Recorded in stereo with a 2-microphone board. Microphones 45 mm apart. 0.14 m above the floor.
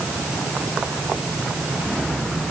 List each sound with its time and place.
Only background noise.